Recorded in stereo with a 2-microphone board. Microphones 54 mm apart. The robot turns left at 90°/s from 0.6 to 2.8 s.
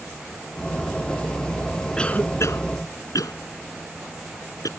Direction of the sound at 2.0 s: 10° left (ahead or behind).